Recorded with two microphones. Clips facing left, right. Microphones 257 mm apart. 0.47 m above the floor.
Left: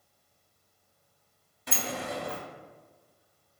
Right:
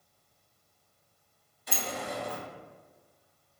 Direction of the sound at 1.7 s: 65° left (ahead or behind).